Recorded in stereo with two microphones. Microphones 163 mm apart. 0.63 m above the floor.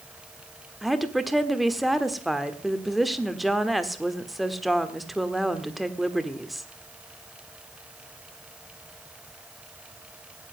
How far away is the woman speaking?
About 1.3 m.